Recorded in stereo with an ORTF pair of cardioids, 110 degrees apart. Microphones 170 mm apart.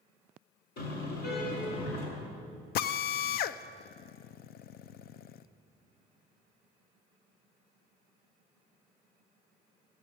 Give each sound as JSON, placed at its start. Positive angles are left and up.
{"t": 0.8, "sound": "a car horn", "azimuth_deg": 65, "distance_m": 7.0}
{"t": 2.8, "sound": "a drill", "azimuth_deg": 70, "distance_m": 0.6}